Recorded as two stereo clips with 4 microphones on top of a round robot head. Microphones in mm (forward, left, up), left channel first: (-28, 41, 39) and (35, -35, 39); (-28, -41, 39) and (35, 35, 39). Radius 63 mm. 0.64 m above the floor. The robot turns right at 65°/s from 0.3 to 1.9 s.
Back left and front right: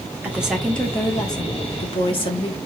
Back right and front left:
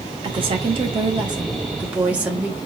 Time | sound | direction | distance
0.2 | a woman speaking | 20° left | 1.7 m